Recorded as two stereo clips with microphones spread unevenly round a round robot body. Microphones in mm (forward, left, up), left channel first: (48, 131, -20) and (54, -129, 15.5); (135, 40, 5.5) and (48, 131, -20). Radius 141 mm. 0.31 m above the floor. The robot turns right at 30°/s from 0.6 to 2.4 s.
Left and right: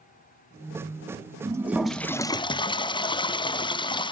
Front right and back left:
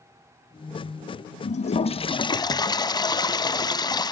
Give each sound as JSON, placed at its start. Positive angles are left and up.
{"t": 1.4, "sound": "a toilet flushing", "azimuth_deg": -10, "distance_m": 0.6}